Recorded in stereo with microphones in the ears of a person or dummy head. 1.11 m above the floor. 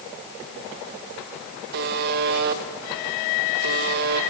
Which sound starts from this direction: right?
A buzzer, at 1.7 s.